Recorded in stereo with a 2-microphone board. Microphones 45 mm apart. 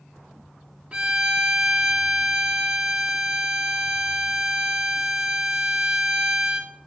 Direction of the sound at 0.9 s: 25° right (ahead or behind).